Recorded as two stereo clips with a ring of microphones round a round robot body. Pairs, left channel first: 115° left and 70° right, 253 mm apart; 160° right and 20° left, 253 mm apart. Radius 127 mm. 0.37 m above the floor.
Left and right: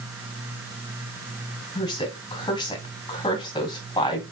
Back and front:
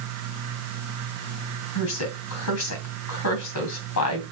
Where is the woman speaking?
175° right, 2.5 m.